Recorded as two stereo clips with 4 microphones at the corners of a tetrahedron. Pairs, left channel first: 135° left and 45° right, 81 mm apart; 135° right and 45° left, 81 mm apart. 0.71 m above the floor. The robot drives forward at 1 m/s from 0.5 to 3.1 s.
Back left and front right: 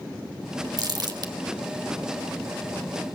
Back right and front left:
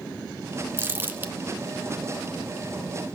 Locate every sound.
0.8 s crumpling: 15° right, 1.9 m; by 1.3 s 20° right, 1.4 m